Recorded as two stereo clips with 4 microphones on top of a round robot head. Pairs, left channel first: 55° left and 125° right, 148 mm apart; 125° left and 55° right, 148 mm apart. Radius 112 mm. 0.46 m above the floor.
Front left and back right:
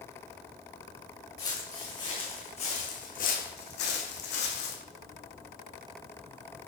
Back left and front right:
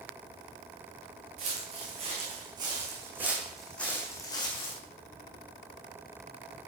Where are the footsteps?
10° right, 2.5 m; by 4.8 s 70° left, 1.6 m.